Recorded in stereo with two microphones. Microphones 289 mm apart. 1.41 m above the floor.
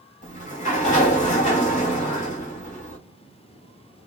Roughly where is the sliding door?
Left.